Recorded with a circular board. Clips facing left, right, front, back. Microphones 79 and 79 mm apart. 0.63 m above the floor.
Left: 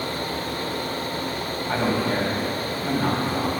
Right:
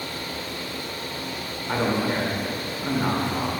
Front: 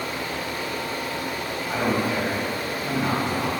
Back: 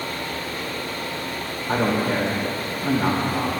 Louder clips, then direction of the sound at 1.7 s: Even, back 3 dB; 160° right.